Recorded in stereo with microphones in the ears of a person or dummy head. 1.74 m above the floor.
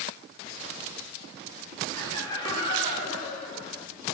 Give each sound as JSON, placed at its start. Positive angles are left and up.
{"t": 1.9, "sound": "laughter", "side_deg": 20, "distance_m": 4.0}